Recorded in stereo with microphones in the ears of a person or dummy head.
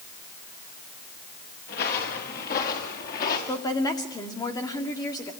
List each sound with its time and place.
1.7 s footsteps: 50° left (ahead or behind), 5.5 m
3.5 s a woman speaking: 20° left (ahead or behind), 2.5 m